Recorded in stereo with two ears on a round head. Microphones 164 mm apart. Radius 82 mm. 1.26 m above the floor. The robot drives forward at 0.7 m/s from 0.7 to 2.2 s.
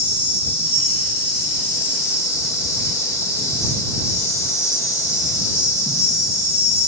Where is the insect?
10° left (ahead or behind), 4 m; by 6.9 s 15° left (ahead or behind), 3 m.